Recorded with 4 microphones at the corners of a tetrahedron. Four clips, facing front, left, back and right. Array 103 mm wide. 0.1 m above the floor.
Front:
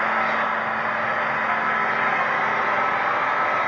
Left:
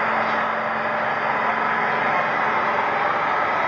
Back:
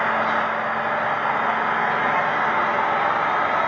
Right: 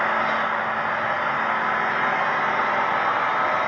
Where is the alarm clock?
No alarm clock in this recording.